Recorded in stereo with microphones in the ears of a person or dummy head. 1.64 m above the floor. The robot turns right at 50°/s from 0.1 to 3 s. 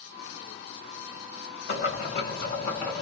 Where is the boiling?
105° left, 1.8 m; by 3.0 s 170° left, 1.8 m.